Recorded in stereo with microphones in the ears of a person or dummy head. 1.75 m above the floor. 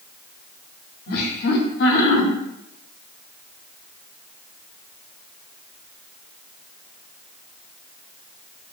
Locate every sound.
1.1 s laughter: 55° left (ahead or behind), 0.8 m